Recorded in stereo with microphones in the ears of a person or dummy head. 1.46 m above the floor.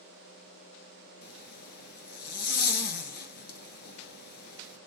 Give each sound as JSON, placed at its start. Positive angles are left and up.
{"t": 1.2, "sound": "a zipper", "side_deg": 50, "distance_m": 1.8}